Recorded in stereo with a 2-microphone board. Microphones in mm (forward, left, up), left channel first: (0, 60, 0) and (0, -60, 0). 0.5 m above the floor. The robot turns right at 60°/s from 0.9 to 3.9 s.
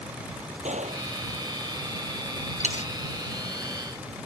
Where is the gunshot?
75° right (ahead or behind); by 1.1 s 85° right.